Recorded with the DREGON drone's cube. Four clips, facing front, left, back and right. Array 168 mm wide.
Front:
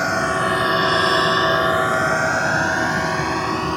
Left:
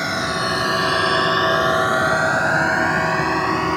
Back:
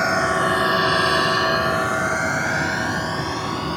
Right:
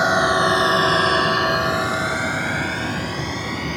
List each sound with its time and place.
0.0 s a drone: 95° right; by 3.8 s 65° left